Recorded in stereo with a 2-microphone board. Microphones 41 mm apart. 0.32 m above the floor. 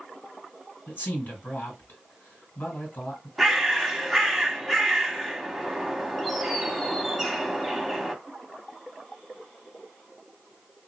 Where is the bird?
Centre (ahead or behind), 0.6 m.